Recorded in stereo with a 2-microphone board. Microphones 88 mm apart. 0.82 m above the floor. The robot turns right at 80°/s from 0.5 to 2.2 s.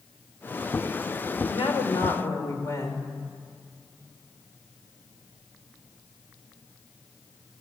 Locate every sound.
1.4 s a woman speaking: 85° left, 3 m; by 3.0 s 145° left, 3 m